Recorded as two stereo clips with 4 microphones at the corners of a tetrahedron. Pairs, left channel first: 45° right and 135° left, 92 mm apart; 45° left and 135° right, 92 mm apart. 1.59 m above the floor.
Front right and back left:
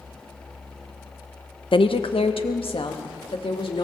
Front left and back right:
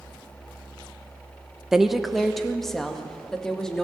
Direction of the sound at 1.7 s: 50° right.